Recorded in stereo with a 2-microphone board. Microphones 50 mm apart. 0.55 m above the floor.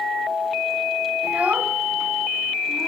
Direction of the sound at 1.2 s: 30° right (ahead or behind).